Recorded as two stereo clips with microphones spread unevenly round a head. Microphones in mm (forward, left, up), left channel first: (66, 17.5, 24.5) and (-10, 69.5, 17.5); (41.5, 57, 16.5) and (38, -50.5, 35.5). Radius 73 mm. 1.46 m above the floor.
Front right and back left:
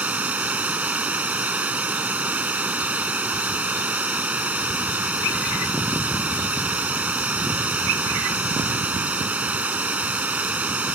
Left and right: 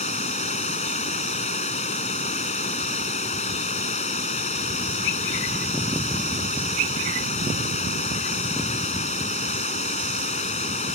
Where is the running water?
70° left.